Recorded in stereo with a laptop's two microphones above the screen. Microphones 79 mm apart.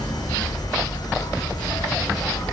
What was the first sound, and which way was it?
An insect, 60° left (ahead or behind).